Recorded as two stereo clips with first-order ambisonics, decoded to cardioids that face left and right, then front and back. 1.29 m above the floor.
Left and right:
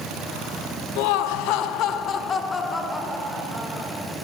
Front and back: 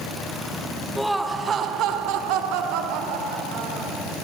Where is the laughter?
90° left, 0.8 m; by 4.0 s 170° right, 1.8 m.